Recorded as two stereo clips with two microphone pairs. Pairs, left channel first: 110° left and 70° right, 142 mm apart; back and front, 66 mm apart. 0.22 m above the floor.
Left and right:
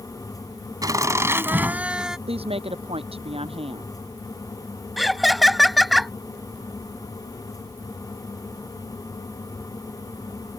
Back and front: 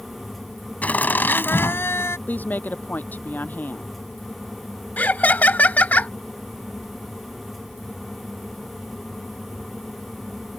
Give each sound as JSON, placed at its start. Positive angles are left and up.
{"t": 0.8, "sound": "laughter", "azimuth_deg": -125}
{"t": 2.3, "sound": "a woman speaking", "azimuth_deg": -120}
{"t": 5.0, "sound": "laughter", "azimuth_deg": -160}